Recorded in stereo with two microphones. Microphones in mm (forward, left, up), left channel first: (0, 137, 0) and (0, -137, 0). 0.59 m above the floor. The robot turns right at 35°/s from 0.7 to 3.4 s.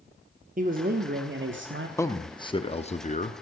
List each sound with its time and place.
0.6 s a man speaking: 135° right, 0.8 m; by 1.9 s 95° right, 0.8 m
2.0 s a man speaking: 20° left, 0.6 m; by 3.4 s 70° left, 0.6 m